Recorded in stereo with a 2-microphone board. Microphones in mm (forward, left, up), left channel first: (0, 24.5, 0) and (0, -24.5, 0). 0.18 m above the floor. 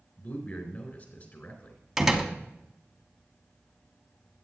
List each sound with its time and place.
0.2 s a man speaking: 40° left (ahead or behind), 3.5 m
2.0 s a door slam: 5° right (ahead or behind), 0.9 m